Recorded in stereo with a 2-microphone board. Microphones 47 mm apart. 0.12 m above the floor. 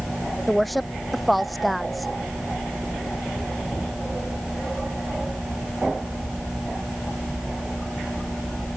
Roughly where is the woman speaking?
Centre.